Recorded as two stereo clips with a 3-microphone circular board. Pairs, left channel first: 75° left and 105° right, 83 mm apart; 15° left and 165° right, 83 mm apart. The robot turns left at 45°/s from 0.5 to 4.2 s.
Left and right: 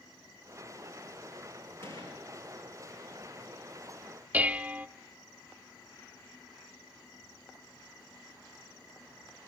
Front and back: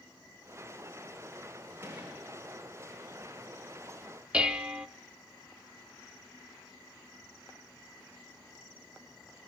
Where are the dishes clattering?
115° right, 0.8 m.